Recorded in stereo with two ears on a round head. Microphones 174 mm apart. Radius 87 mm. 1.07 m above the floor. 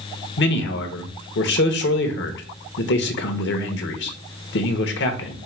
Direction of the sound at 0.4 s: 60° left (ahead or behind).